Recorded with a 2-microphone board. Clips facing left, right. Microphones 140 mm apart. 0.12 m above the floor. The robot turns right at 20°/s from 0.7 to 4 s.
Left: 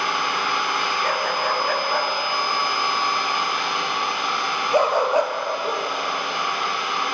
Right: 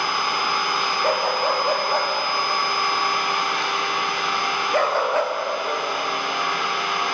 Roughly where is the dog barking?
Right.